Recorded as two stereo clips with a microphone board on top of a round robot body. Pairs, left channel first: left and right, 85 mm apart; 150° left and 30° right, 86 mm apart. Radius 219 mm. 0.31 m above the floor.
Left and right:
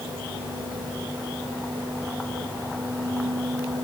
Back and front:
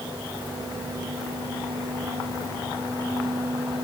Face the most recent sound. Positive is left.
No sound to turn to.